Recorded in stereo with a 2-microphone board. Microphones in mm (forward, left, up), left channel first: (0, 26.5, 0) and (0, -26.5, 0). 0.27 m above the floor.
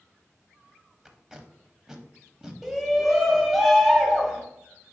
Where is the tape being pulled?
10° right (ahead or behind), 0.6 m.